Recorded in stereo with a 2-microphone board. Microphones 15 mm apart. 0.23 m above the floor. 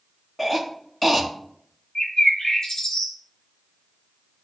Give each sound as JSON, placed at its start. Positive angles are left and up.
{"t": 0.4, "sound": "a cough", "side_deg": 5, "distance_m": 2.5}
{"t": 1.9, "sound": "a bird", "side_deg": 55, "distance_m": 2.5}